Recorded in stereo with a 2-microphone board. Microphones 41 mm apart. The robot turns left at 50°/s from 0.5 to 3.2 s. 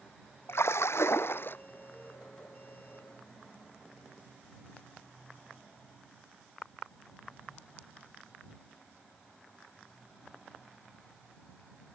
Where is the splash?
105° left; by 1.6 s 50° left.